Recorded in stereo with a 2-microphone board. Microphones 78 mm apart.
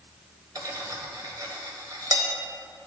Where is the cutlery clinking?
50° right (ahead or behind), 0.9 m.